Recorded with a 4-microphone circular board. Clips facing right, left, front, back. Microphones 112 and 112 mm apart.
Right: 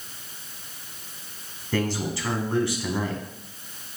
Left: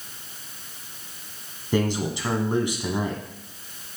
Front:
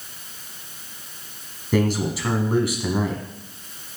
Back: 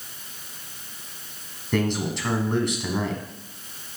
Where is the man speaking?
70° left, 1.0 m.